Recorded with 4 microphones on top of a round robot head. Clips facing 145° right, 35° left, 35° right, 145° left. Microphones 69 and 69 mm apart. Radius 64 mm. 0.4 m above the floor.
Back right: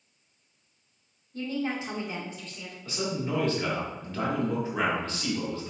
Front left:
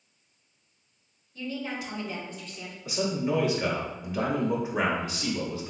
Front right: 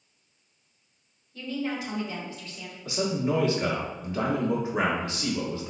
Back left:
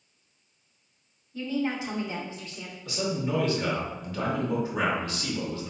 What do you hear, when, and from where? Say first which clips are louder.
1.3 s a woman speaking: back right 3 dB, back left 2 dB; 150° right, 1.2 m; by 2.8 s 95° left, 1.1 m
2.9 s a man speaking: front left 3 dB, front right 3 dB; 25° right, 1.1 m